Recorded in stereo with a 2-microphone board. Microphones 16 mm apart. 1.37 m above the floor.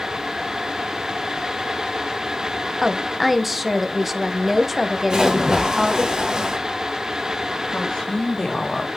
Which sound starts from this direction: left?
A woman speaking, at 7.7 s.